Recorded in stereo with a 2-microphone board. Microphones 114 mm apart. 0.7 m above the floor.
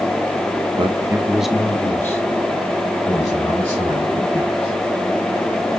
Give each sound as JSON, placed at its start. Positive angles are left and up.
{"t": 0.8, "sound": "a man speaking", "side_deg": -55, "distance_m": 1.0}